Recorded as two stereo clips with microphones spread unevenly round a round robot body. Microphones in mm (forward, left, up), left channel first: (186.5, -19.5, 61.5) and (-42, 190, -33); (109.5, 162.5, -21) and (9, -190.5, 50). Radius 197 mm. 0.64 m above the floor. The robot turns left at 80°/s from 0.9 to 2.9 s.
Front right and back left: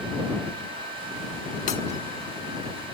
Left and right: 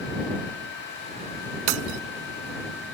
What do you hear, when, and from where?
1.7 s breaking glass: 115° right; by 2.0 s 140° right